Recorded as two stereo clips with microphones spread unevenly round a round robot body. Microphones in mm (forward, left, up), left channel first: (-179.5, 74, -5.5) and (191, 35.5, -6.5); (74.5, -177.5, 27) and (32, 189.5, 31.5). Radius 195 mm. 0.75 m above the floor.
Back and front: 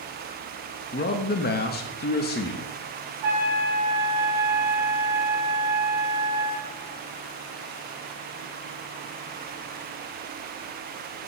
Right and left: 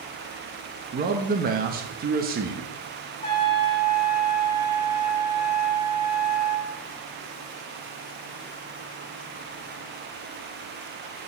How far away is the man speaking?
About 0.5 m.